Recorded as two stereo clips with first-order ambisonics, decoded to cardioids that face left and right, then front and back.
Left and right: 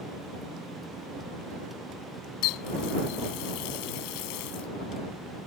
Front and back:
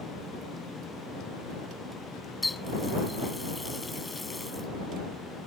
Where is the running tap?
85° left.